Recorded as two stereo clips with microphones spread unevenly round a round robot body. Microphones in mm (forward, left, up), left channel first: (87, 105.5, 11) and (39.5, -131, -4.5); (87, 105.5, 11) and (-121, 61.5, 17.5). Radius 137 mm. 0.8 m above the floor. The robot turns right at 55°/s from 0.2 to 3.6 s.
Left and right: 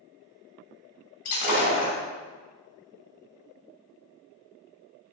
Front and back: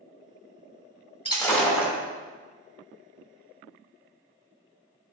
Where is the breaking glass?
75° left, 2.5 m; by 1.9 s 115° left, 2.5 m.